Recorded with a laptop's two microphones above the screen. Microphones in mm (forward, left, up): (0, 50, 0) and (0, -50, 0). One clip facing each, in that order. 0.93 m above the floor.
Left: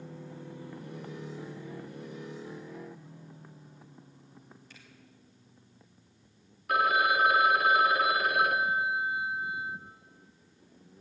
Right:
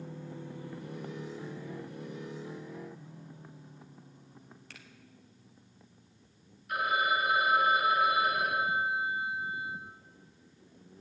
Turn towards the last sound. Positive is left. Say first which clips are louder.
# left 4 dB
turn(degrees=75)  # may be behind; listen again after turning